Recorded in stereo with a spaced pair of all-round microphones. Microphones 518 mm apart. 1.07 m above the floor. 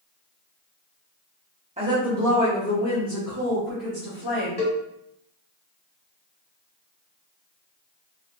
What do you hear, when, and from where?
1.8 s a woman speaking: 15° right (ahead or behind), 0.8 m; by 4.5 s 60° left (ahead or behind), 1.4 m
4.6 s a cowbell: 20° left (ahead or behind), 1.1 m